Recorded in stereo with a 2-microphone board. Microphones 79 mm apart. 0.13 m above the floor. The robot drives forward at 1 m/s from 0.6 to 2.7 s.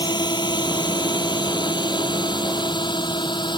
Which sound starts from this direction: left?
A drone, at 0.0 s.